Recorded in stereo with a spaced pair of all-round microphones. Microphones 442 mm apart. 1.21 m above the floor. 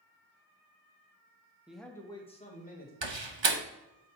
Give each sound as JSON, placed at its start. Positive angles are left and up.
{"t": 1.7, "sound": "a man speaking", "side_deg": -5, "distance_m": 1.1}
{"t": 3.0, "sound": "a door slam", "side_deg": -80, "distance_m": 1.0}